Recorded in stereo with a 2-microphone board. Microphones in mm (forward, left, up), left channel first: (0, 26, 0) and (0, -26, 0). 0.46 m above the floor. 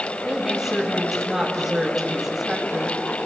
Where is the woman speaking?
10° right (ahead or behind), 2.5 m.